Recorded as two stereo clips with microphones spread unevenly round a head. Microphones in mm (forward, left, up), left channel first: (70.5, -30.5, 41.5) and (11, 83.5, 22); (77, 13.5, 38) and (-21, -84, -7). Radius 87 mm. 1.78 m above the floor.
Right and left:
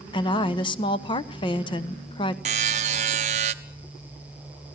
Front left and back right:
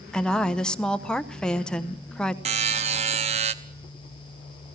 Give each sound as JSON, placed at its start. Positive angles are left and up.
{"t": 0.1, "sound": "a woman speaking", "azimuth_deg": -25, "distance_m": 1.0}
{"t": 2.5, "sound": "a buzzer", "azimuth_deg": 170, "distance_m": 0.7}